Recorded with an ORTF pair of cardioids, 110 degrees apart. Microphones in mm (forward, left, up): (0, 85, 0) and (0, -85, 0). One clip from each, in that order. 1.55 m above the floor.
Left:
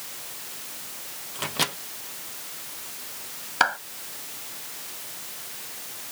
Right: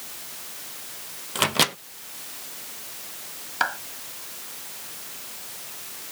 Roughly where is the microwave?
Ahead right.